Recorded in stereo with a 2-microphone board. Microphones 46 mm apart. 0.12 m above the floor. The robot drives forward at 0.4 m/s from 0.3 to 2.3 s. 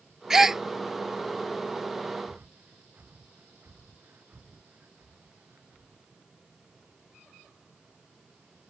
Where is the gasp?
15° right (ahead or behind); by 0.6 s 10° right (ahead or behind).